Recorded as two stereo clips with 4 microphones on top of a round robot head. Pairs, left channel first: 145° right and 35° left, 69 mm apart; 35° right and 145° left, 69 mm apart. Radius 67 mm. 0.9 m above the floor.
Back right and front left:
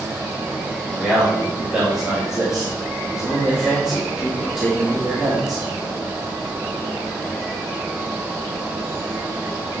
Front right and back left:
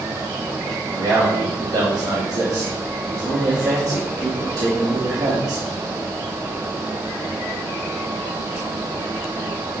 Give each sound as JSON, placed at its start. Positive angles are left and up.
{"t": 0.9, "sound": "a man speaking", "azimuth_deg": 115, "distance_m": 3.0}